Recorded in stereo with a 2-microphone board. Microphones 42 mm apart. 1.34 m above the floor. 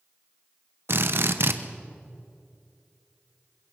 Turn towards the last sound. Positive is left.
turn(degrees=-70)  # may be behind; listen again after turning